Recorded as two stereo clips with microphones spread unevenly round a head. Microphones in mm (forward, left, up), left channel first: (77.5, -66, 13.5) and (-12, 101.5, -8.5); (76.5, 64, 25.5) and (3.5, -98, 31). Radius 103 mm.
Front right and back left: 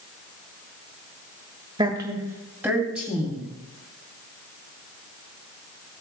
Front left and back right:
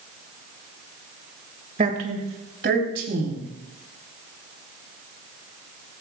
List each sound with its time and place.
1.8 s a woman speaking: 170° right, 1.9 m; by 3.5 s 155° right, 4 m